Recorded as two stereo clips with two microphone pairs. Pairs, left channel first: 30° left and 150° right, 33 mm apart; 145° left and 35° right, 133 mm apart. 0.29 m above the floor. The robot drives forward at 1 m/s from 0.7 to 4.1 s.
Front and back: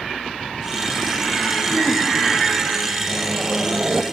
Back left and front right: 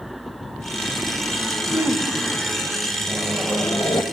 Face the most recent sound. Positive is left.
turn(degrees=-175)